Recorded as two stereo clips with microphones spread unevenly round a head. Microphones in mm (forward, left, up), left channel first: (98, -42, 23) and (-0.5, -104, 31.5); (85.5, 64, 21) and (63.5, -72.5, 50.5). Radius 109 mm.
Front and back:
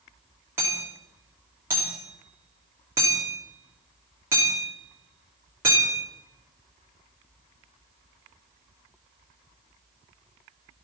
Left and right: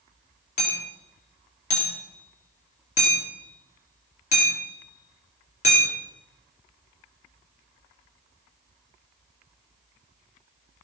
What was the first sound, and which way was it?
Hammering, 135° left.